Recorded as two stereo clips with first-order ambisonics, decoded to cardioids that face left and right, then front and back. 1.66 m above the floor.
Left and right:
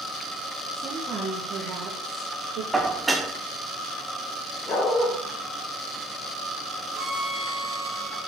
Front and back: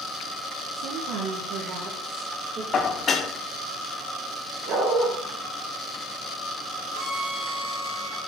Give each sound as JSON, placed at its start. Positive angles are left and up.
{"t": 0.7, "sound": "a woman speaking", "azimuth_deg": -175, "distance_m": 1.2}
{"t": 2.7, "sound": "dishes clattering", "azimuth_deg": -15, "distance_m": 0.6}
{"t": 4.7, "sound": "a dog barking", "azimuth_deg": 150, "distance_m": 1.9}
{"t": 6.9, "sound": "a violin", "azimuth_deg": -170, "distance_m": 2.0}